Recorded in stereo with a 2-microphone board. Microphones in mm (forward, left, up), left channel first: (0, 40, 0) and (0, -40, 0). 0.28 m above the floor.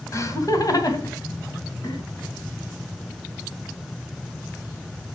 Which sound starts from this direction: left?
Laughter, at 0.1 s.